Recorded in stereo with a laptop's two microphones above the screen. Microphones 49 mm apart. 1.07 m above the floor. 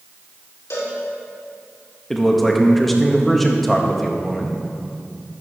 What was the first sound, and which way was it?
A cowbell, 70° left (ahead or behind).